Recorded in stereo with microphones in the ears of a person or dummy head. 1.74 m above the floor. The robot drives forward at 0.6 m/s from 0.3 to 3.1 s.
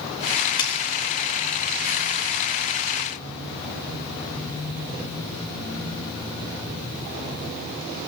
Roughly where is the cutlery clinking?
Left.